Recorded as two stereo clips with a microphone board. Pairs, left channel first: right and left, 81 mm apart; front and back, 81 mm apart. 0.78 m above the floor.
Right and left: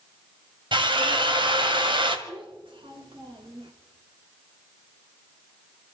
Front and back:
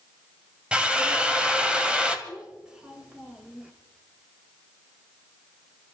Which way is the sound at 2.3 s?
100° left.